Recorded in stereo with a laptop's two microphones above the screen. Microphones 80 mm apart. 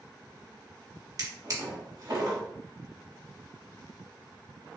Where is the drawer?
45° right (ahead or behind), 0.8 m.